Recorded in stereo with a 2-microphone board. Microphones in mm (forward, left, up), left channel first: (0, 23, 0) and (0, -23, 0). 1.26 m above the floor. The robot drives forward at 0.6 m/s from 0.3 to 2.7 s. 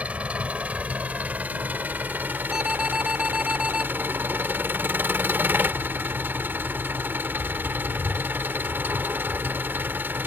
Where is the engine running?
35° right (ahead or behind); by 10.3 s 50° right (ahead or behind).